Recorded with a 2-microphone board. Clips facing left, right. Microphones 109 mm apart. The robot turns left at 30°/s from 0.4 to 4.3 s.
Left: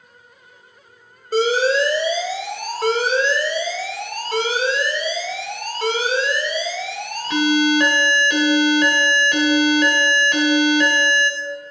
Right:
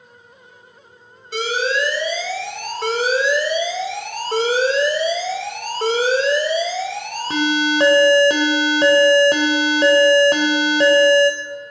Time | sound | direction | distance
1.3 | an alarm | 45° left | 1.5 m